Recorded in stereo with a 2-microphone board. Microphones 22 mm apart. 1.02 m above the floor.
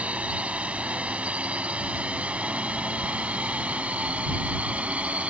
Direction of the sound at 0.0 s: 80° right.